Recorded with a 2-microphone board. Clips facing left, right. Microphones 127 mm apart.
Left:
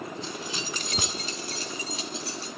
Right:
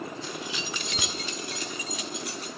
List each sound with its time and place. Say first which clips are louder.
0.2 s keys jangling: even; 25° left (ahead or behind), 0.5 m; by 2.5 s 30° left (ahead or behind), 2 m